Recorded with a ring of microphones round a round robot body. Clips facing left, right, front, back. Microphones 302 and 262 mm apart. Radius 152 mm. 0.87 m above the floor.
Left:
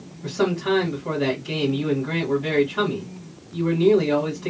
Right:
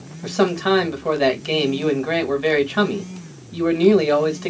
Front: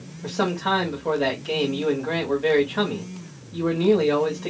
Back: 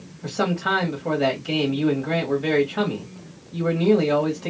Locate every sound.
0.2 s a man speaking: 90° right, 1.5 m